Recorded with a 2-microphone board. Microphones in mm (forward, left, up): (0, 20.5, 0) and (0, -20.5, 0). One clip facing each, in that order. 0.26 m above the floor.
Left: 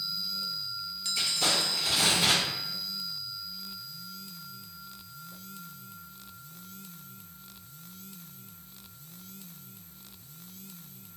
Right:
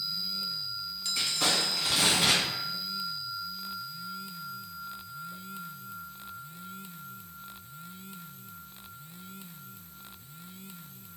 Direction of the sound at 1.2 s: 65° right (ahead or behind).